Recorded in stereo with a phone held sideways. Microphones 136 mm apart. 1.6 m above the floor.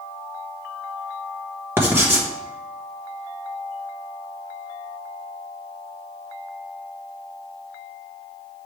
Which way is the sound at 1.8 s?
15° right (ahead or behind).